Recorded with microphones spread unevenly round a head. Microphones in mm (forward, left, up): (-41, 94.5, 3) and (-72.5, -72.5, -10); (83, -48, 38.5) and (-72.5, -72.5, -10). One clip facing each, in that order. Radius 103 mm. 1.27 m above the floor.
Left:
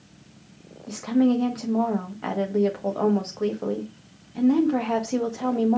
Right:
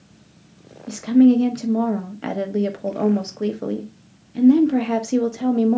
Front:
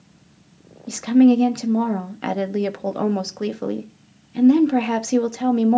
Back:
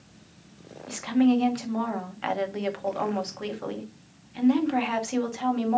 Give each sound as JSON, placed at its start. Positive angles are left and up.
{"t": 0.9, "sound": "a woman speaking", "azimuth_deg": -35, "distance_m": 1.1}